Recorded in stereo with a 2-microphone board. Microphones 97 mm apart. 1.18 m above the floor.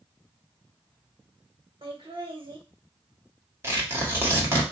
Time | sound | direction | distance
1.8 | laughter | 60° right (ahead or behind) | 1.3 m
3.6 | tearing paper | 25° right (ahead or behind) | 1.5 m